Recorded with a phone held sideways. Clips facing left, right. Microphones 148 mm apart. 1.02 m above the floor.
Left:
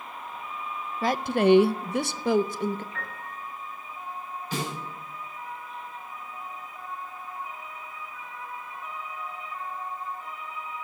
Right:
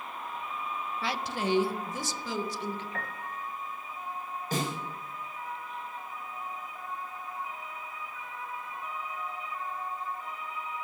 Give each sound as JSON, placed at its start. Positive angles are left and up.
{"t": 1.0, "sound": "a woman speaking", "side_deg": 45, "distance_m": 0.5}
{"t": 2.9, "sound": "a piano", "side_deg": -55, "distance_m": 1.6}
{"t": 4.5, "sound": "a snare drum", "side_deg": -45, "distance_m": 5.0}